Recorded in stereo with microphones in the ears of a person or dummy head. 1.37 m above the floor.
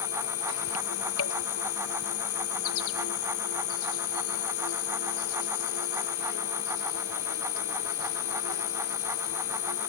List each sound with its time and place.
0.0 s an insect: 75° left (ahead or behind)